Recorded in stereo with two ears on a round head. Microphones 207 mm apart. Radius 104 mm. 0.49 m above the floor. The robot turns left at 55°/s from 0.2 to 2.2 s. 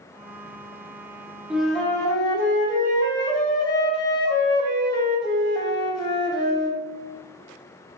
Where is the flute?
170° right, 0.7 m; by 6.8 s 150° left, 0.7 m.